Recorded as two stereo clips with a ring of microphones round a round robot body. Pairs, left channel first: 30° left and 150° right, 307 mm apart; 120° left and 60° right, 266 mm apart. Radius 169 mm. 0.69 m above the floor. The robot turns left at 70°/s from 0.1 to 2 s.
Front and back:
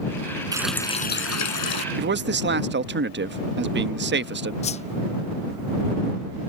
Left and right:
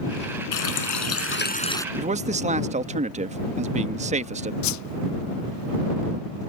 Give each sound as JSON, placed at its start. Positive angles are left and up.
{"t": 0.5, "sound": "a running tap", "azimuth_deg": 135}
{"t": 1.9, "sound": "a man speaking", "azimuth_deg": -110}
{"t": 4.6, "sound": "a whoosh", "azimuth_deg": 100}